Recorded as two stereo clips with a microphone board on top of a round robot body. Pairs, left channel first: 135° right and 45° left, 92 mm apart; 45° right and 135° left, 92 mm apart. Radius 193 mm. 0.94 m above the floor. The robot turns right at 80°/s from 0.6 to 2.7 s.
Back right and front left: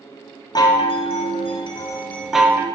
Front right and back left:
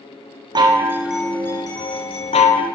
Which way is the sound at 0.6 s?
Straight behind.